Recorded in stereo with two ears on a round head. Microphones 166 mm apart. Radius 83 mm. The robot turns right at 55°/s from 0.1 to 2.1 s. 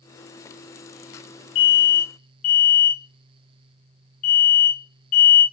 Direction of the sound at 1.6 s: 70° left (ahead or behind).